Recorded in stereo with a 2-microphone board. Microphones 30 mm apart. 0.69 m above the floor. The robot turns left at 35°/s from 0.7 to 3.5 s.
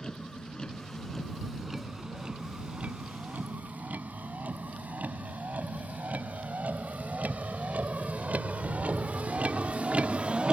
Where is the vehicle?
25° left (ahead or behind); by 10.5 s 40° right (ahead or behind).